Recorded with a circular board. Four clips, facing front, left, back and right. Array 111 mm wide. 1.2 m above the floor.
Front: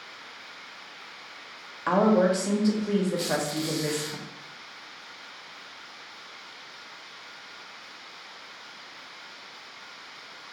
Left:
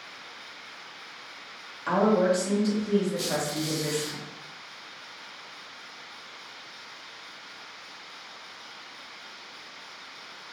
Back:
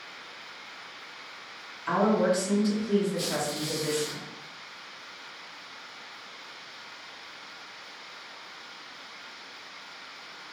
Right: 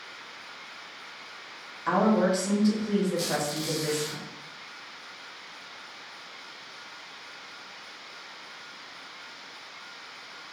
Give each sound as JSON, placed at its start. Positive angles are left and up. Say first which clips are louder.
{"t": 1.9, "sound": "a woman speaking", "louder": "left 1 dB, front 3 dB", "azimuth_deg": -5, "distance_m": 1.4}
{"t": 3.2, "sound": "a squeak", "louder": "even, front 3 dB", "azimuth_deg": -10, "distance_m": 1.8}